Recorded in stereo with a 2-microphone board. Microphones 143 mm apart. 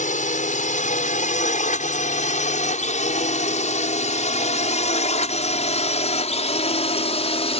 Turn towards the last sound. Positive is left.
turn(degrees=50)  # may be behind; listen again after turning